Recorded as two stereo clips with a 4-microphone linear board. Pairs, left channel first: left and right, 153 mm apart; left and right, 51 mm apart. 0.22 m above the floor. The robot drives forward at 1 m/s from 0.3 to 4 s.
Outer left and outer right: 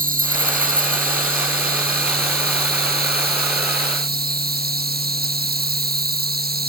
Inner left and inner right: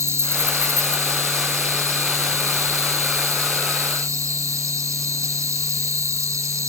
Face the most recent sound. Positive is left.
turn(degrees=-80)